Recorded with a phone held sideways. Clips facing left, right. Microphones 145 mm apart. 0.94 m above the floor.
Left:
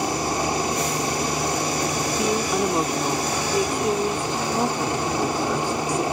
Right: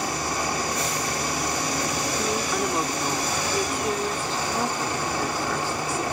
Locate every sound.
0.0 s a helicopter: 20° left (ahead or behind)
2.2 s a woman speaking: 20° left (ahead or behind)